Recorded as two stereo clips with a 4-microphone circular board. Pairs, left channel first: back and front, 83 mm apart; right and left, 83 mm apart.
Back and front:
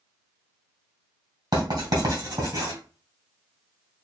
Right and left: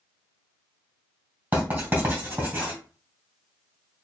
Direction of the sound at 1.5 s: 25° left.